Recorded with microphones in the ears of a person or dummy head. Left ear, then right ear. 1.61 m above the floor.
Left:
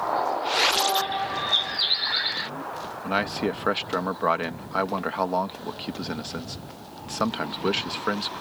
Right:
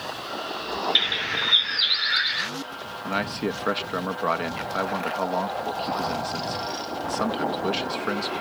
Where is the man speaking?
10° left (ahead or behind).